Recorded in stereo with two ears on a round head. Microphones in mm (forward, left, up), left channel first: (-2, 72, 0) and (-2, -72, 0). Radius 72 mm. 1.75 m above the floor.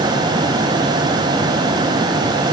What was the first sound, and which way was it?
Only background noise.